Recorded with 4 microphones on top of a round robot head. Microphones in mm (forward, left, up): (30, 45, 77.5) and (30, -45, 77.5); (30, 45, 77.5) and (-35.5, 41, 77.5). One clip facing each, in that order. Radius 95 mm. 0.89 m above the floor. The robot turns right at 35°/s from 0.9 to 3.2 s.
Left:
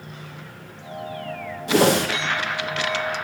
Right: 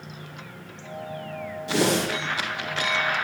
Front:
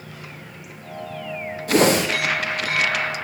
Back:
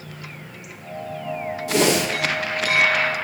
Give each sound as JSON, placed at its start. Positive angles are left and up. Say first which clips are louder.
{"t": 1.7, "sound": "a whoosh", "louder": "left 5 dB, front 3 dB", "azimuth_deg": 45, "distance_m": 1.1}